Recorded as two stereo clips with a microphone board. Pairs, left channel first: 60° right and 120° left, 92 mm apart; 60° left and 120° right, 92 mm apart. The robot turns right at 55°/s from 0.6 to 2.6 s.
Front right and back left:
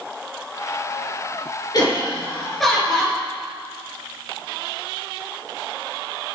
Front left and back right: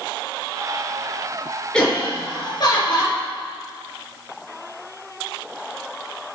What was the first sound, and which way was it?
Laughter, 20° right.